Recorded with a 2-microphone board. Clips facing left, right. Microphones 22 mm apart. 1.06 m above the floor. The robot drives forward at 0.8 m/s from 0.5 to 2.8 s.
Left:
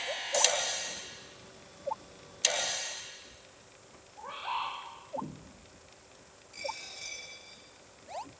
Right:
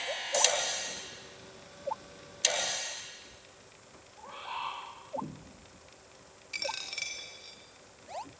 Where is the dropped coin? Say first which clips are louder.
Right 4 dB; 70° right (ahead or behind), 3 m.